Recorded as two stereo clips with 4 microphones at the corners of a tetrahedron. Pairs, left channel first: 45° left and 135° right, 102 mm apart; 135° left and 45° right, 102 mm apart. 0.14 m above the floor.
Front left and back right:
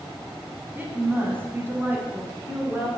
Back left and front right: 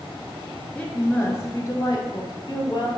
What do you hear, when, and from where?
0.8 s a woman speaking: 170° right, 1.1 m; by 2.9 s 155° left, 1.8 m